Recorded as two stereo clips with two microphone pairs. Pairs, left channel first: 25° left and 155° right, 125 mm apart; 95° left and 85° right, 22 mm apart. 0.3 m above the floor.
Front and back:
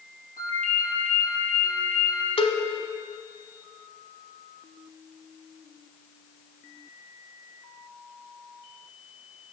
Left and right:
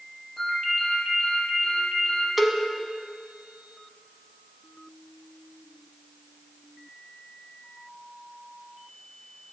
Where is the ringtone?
175° left, 5.5 m.